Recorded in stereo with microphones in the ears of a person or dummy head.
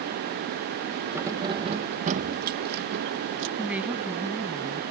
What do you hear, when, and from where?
1.1 s keys jangling: 15° right (ahead or behind); by 3.5 s 65° right (ahead or behind)
3.6 s a woman speaking: 5° right (ahead or behind)